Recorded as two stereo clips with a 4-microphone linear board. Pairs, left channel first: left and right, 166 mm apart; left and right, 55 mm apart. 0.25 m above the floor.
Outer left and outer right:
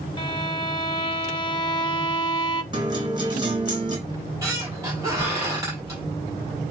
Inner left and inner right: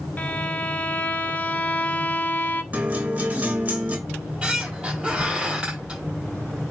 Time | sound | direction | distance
0.2 | a violin | 30° left (ahead or behind) | 0.9 m
2.7 | a guitar | 30° right (ahead or behind) | 3.5 m
4.1 | a squeak | 20° right (ahead or behind) | 5.5 m